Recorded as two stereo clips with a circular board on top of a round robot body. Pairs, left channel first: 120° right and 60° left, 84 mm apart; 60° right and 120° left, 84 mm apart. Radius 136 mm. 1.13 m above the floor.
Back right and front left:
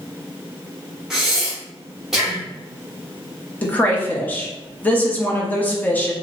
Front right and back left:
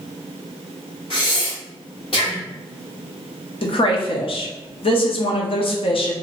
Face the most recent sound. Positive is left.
turn(degrees=-50)